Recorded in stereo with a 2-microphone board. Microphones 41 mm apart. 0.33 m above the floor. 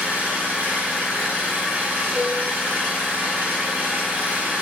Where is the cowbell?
5° right (ahead or behind), 1.6 m.